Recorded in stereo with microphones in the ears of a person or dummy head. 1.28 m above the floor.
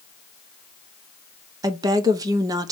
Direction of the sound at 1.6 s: 20° right (ahead or behind).